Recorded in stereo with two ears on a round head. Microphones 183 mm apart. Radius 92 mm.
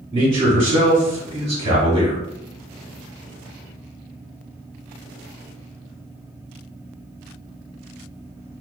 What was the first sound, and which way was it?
A man speaking, 30° right (ahead or behind).